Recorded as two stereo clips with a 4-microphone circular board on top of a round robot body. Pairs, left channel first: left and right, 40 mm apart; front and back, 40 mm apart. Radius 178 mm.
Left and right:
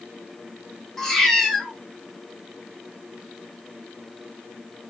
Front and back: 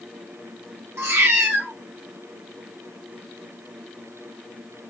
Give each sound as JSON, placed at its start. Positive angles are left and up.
{"t": 1.0, "sound": "a cat meowing", "azimuth_deg": 165, "distance_m": 0.5}